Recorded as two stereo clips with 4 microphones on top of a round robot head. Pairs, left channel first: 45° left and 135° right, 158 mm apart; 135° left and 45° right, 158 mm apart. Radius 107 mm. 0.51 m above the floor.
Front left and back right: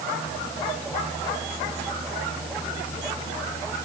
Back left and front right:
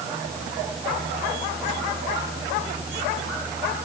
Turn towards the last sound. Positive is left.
No sound to turn to.